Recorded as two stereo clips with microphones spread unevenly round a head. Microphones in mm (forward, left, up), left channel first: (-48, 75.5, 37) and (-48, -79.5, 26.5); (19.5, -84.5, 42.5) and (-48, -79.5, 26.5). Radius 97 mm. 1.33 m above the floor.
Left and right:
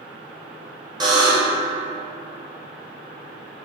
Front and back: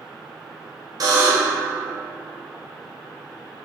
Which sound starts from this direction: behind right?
A buzzer, at 1.0 s.